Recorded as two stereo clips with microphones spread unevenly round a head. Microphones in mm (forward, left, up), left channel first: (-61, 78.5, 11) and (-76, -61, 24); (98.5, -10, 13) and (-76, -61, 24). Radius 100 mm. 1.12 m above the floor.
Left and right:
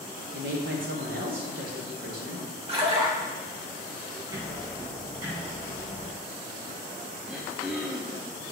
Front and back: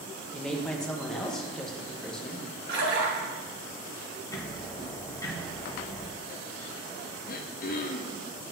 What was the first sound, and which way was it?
A woman speaking, 70° right.